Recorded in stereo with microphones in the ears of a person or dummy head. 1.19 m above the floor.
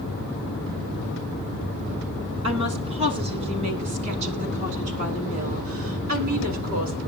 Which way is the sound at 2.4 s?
30° right (ahead or behind).